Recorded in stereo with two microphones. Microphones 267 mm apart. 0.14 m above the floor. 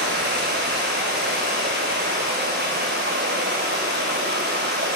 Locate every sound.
0.0 s running water: 40° right (ahead or behind), 1.0 m